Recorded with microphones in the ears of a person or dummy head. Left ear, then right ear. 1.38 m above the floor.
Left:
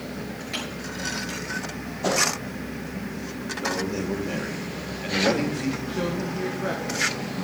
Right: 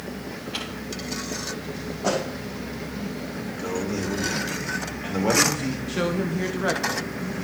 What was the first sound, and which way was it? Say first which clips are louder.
Crumpling: left 1 dB; 80° left.